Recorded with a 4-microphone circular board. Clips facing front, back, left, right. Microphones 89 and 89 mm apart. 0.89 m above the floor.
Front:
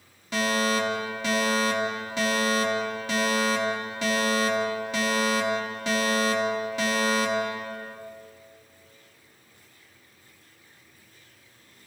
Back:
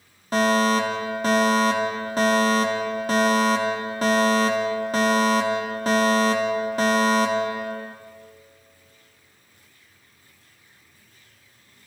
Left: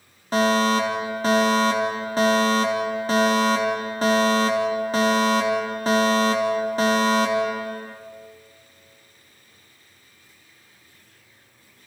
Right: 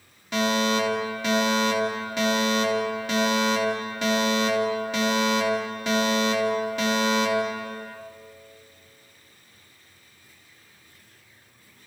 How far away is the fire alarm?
About 4 m.